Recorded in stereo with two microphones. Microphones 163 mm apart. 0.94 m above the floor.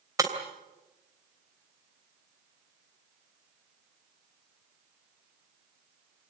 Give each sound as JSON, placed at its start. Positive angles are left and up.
{"t": 0.2, "sound": "breaking glass", "side_deg": -20, "distance_m": 3.0}